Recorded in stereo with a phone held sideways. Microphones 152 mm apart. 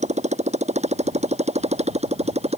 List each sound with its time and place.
0.0 s a motorcycle: 50° right (ahead or behind); by 2.6 s 45° right (ahead or behind)